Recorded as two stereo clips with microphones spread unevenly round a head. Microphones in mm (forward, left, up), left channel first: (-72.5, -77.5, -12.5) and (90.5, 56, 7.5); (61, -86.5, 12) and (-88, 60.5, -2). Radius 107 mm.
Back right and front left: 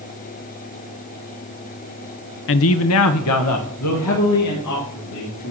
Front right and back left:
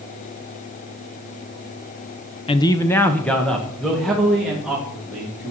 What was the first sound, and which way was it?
A man speaking, 110° right.